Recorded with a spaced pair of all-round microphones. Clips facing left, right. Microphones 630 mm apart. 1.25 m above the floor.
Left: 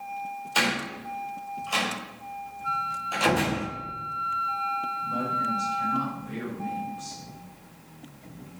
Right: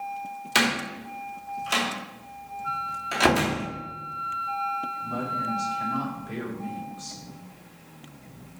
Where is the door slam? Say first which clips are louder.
Right 3 dB; 85° right, 2.5 m.